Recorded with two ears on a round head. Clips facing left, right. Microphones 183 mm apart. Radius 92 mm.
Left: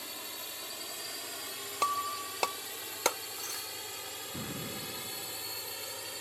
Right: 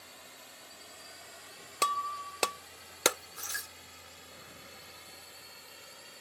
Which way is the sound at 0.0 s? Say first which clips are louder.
Left 8 dB; 80° left.